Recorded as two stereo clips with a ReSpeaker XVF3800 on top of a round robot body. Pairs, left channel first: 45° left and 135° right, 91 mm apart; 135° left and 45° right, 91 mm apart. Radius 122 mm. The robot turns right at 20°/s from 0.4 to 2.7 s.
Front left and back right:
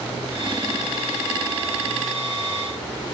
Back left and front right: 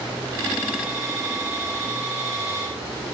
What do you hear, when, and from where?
Only background noise.